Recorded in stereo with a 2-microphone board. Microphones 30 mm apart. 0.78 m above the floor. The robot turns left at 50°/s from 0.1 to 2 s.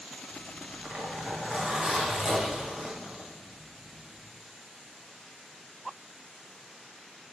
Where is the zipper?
90° right, 1.6 m; by 4.2 s 175° right, 1.6 m.